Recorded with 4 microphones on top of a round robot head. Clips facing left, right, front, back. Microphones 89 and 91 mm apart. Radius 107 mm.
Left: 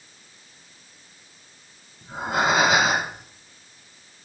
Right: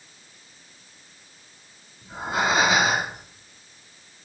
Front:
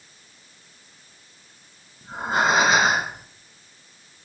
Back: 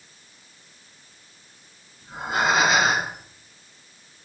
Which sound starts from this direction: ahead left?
Breathing, at 2.0 s.